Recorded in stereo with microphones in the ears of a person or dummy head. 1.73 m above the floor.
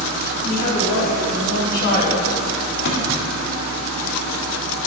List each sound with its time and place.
0.4 s a woman speaking: 45° left (ahead or behind), 3 m
2.9 s a thud: 60° left (ahead or behind), 2 m